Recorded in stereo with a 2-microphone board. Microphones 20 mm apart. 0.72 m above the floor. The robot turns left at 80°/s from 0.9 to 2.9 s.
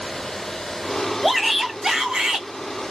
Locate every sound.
1.2 s a shout: straight ahead, 2 m; by 2.5 s 100° right, 2 m